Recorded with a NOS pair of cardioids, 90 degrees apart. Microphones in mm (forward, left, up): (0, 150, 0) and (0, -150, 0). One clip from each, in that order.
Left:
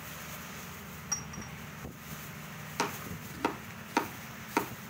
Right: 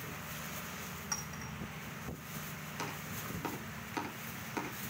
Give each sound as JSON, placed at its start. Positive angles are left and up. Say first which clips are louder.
{"t": 1.1, "sound": "a clink", "louder": "left 4 dB", "azimuth_deg": 0, "distance_m": 4.5}
{"t": 2.8, "sound": "chopping", "louder": "left 8 dB", "azimuth_deg": 70, "distance_m": 2.5}